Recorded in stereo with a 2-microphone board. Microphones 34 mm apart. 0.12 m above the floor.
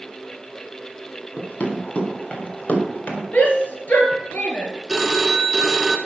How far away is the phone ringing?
About 1.1 m.